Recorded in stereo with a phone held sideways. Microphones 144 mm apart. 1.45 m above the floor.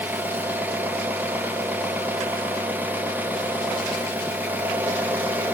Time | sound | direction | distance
0.0 | an engine running | 15° right (ahead or behind) | 0.8 m